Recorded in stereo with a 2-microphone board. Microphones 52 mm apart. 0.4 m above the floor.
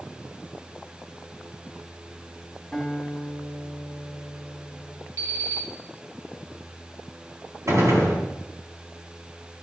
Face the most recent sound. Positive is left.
turn(degrees=-75)  # may be behind; listen again after turning